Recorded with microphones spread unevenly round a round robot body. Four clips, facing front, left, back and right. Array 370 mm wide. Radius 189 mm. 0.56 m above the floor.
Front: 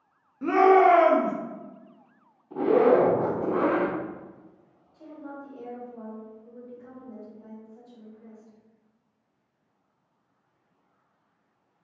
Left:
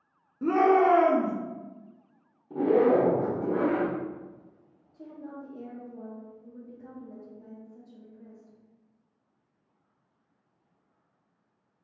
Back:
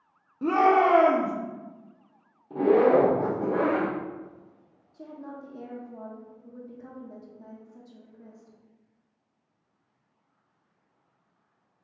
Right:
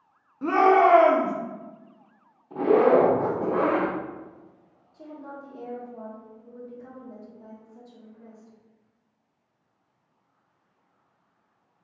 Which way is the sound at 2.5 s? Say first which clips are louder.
Right 3 dB, even; 135° left.